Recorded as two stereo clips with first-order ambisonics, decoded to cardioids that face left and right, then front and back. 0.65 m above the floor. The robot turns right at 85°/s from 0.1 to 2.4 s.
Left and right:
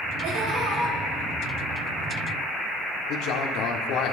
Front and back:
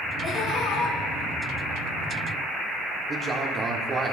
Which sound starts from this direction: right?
Laughter, at 0.2 s.